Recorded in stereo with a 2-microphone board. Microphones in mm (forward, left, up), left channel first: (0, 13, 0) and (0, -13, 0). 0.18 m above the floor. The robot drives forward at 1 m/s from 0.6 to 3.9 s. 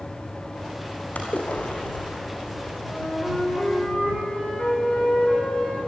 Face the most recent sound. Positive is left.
turn(degrees=40)  # may be behind; listen again after turning